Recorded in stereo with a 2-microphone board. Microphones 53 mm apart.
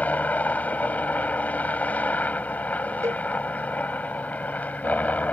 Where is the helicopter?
30° left (ahead or behind).